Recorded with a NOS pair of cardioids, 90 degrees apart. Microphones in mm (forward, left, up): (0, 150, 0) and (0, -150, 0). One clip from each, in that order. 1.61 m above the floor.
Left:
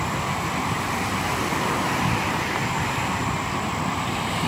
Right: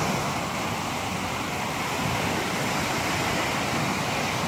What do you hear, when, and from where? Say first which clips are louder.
0.0 s an insect: left 1 dB; 45° left